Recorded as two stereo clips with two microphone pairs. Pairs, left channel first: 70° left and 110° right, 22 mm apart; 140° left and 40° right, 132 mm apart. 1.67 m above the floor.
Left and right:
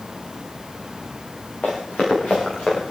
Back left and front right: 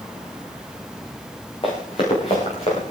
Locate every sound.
1.6 s running footsteps: 95° left, 7.5 m; by 2.9 s 100° left, 7 m